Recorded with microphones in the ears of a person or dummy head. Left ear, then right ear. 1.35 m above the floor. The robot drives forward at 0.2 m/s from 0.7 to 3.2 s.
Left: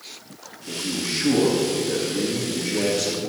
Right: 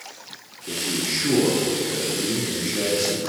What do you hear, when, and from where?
0.7 s a man speaking: 90° left, 2.5 m; by 3.3 s 80° left, 2.5 m